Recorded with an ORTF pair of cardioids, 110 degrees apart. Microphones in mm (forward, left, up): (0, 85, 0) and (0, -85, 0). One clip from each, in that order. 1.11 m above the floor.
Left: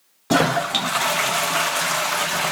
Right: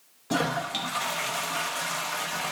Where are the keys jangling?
No keys jangling in this recording.